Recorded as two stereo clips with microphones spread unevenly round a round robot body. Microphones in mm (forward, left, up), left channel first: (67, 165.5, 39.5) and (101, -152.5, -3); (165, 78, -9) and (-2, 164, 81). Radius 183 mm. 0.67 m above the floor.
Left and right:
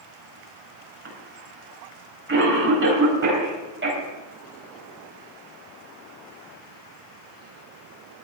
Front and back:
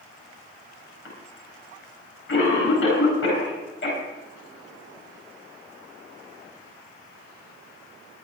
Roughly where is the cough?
Ahead right.